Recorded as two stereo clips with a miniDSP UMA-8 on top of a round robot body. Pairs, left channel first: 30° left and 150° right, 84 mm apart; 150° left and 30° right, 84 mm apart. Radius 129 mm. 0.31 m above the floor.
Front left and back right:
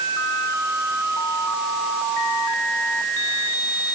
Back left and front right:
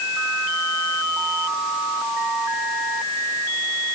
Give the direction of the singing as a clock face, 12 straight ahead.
I don't hear singing.